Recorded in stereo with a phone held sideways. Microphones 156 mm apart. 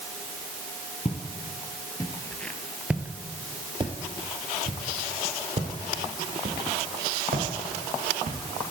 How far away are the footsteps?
About 1.4 m.